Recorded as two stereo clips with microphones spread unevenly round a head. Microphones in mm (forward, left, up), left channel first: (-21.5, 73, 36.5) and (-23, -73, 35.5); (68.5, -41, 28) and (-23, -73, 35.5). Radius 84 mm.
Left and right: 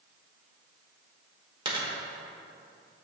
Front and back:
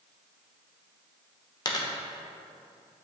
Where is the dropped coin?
30° right, 1.2 m.